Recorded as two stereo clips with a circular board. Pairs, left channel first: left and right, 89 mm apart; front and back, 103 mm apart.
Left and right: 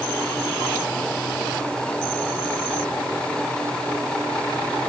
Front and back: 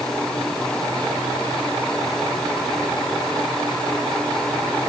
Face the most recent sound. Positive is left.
No sound to turn to.